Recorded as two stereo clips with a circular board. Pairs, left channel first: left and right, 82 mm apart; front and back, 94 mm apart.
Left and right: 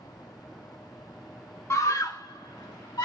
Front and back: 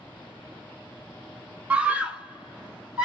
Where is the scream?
115° left, 0.5 m; by 3.0 s 105° left, 1.2 m.